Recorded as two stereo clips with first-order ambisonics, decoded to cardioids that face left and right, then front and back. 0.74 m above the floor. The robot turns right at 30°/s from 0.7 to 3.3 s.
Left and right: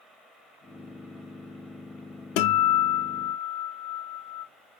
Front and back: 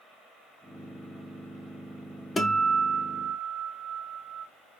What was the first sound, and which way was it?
A guitar, 80° left.